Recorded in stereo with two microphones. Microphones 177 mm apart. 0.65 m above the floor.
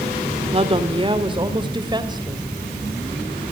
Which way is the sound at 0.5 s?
30° right (ahead or behind).